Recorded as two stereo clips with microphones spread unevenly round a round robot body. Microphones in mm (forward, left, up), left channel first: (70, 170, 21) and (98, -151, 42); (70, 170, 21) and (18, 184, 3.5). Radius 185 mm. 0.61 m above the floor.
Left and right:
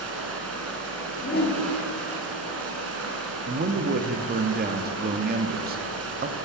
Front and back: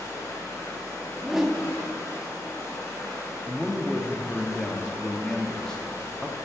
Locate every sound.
0.0 s running water: 40° right, 2.0 m
1.2 s a whoosh: 115° left, 1.4 m
3.5 s a man speaking: 120° right, 0.7 m